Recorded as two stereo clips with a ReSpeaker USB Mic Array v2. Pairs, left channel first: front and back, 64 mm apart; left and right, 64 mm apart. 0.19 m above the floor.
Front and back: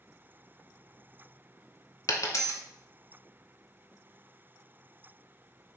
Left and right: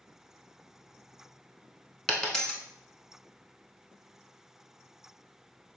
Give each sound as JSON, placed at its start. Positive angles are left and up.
{"t": 2.1, "sound": "a dropped coin", "azimuth_deg": 10, "distance_m": 0.6}